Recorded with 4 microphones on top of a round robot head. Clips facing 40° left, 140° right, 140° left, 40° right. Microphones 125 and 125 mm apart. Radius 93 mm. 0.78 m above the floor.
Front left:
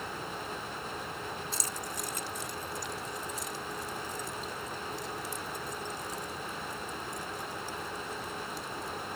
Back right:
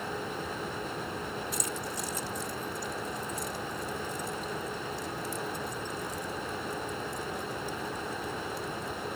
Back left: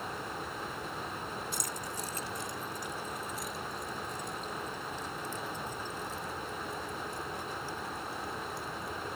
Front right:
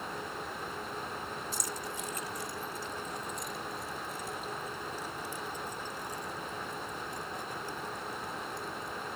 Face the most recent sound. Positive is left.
turn(degrees=30)